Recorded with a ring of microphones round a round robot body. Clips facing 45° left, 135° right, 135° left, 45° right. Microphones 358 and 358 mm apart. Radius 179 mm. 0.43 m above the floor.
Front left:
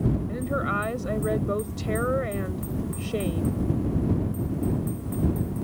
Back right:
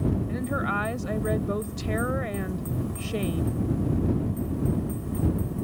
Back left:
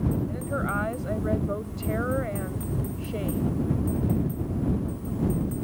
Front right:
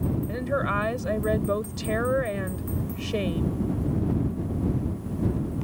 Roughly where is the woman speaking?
Ahead right.